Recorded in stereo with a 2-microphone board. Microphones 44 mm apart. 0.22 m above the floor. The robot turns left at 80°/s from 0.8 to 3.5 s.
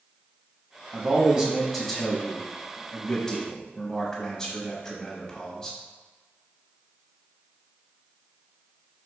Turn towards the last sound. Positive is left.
turn(degrees=15)  # may be behind; listen again after turning